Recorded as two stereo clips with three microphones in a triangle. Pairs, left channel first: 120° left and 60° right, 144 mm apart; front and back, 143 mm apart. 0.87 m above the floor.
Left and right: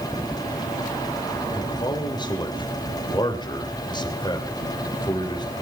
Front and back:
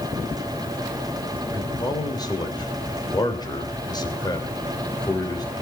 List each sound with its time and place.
1.5 s a man speaking: 60° left, 3.5 m